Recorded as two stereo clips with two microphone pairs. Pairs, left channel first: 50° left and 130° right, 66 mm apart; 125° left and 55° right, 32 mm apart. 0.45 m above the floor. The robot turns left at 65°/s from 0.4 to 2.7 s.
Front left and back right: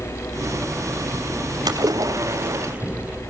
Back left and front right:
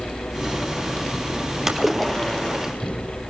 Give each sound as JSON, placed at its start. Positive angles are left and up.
{"t": 1.7, "sound": "a splash", "azimuth_deg": -130, "distance_m": 3.0}